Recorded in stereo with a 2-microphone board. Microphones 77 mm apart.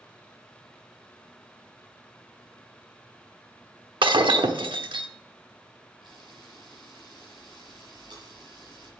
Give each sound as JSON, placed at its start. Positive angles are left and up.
{"t": 4.0, "sound": "breaking glass", "side_deg": -85, "distance_m": 0.9}
{"t": 6.0, "sound": "a camera shutter", "side_deg": -65, "distance_m": 5.0}